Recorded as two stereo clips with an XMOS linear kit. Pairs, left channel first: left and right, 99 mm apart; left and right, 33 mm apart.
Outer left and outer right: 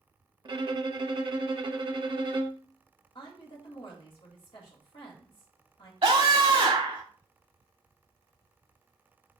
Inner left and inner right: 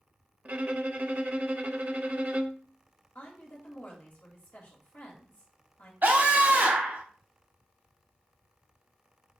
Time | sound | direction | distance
0.5 | a violin | 50° right (ahead or behind) | 0.5 m
3.1 | a woman speaking | 55° left (ahead or behind) | 1.6 m
6.0 | a scream | 70° right (ahead or behind) | 3.5 m